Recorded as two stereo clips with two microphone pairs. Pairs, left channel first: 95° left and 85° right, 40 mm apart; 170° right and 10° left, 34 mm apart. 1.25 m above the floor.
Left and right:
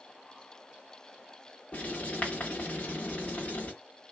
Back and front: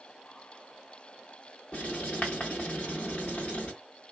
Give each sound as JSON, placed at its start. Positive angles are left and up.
{"t": 1.7, "sound": "writing", "azimuth_deg": 150, "distance_m": 1.4}